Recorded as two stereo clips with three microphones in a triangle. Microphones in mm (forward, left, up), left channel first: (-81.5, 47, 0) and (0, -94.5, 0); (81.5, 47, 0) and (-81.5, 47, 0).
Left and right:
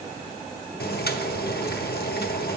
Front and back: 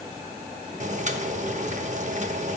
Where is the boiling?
135° left, 0.8 m.